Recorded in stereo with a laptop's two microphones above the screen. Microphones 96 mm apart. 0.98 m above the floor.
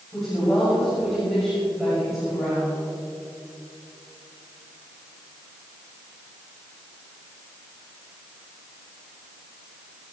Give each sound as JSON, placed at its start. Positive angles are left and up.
{"t": 0.1, "sound": "a woman speaking", "side_deg": 0, "distance_m": 6.0}